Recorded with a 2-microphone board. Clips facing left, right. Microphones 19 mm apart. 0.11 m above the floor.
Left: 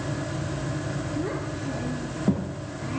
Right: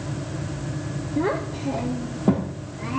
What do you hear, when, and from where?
1.2 s a child speaking: 45° right (ahead or behind), 1.7 m; by 3.0 s 20° right (ahead or behind), 2.5 m